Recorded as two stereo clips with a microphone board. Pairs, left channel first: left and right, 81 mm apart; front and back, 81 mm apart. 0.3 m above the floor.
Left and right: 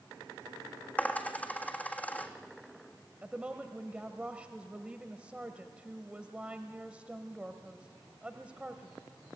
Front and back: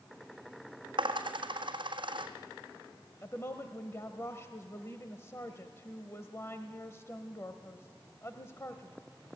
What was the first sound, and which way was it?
A dropped coin, 160° left.